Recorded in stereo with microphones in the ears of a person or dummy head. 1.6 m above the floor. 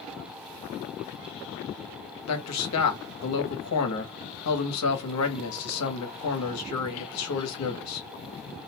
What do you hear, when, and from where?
2.3 s a man speaking: 75° left (ahead or behind), 1.0 m